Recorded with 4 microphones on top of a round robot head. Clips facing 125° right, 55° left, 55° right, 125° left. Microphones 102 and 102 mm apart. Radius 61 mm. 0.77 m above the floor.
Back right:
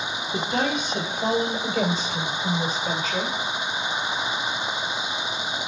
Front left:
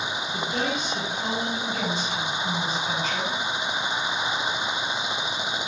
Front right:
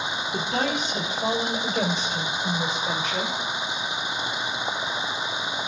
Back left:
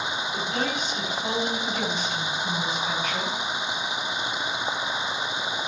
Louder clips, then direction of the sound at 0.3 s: Back right 4 dB, front right 4 dB; 100° right.